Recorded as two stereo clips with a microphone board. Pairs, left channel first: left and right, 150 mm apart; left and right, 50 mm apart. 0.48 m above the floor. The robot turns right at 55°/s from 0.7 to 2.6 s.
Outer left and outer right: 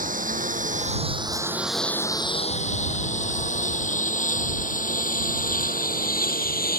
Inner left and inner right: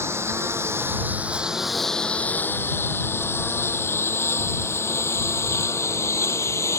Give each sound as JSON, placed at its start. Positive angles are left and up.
{"t": 0.0, "sound": "a lawn mower", "side_deg": -65}